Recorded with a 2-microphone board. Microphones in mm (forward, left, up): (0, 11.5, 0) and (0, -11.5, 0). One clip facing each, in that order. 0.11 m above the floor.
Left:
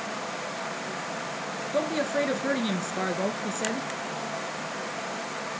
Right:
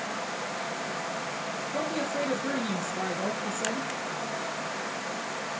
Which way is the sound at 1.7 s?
25° left (ahead or behind).